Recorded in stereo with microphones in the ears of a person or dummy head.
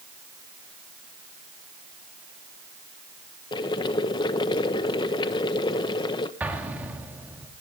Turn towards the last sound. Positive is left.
turn(degrees=-15)  # may be behind; listen again after turning